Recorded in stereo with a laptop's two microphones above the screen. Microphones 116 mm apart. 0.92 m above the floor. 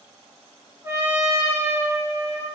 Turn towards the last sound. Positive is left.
turn(degrees=-20)  # may be behind; listen again after turning